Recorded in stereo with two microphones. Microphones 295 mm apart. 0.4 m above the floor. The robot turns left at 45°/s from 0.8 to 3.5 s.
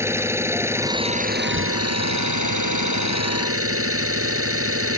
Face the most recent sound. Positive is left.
turn(degrees=-130)